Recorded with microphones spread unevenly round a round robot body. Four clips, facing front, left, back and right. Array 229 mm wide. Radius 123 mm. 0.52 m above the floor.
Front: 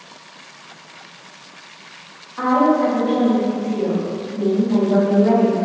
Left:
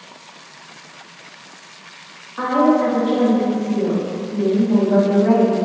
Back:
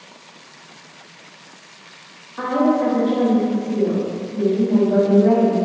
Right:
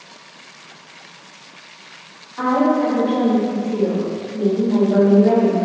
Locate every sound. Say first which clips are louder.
2.4 s a woman speaking: left 1 dB, front 2 dB; 155° right, 1.2 m